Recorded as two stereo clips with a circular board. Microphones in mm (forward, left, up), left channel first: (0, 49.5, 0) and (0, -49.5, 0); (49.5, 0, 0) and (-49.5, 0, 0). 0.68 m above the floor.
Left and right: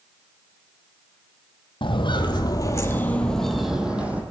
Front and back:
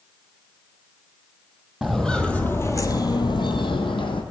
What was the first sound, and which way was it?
Footsteps, 90° left.